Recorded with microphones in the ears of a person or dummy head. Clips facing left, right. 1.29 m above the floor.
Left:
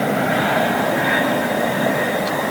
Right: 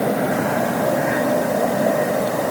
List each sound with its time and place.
Only background noise.